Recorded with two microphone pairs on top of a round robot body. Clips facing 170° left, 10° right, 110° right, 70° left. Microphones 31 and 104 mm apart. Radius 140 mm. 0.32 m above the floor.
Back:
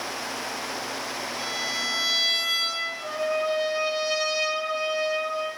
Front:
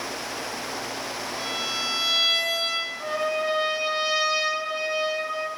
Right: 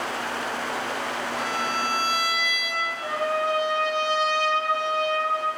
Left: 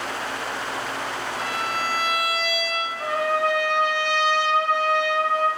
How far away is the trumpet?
About 0.6 m.